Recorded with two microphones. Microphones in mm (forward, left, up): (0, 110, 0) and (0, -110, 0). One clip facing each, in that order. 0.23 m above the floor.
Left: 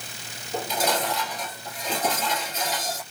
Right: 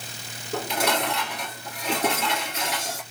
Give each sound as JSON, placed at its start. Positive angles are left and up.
{"t": 0.5, "sound": "dishes clattering", "side_deg": -65, "distance_m": 2.5}